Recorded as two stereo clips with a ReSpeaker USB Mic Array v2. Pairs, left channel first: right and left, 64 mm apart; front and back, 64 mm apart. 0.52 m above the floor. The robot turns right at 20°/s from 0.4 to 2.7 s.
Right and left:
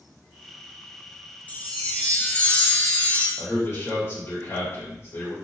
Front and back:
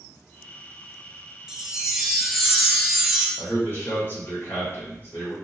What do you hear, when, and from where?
1.5 s a chime: 115° right, 0.6 m; by 3.3 s 90° right, 0.6 m
3.4 s a man speaking: 50° right, 1.8 m